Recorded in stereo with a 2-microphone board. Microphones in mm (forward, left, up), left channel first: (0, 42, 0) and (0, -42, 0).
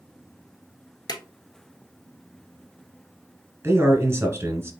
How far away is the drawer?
About 1.0 m.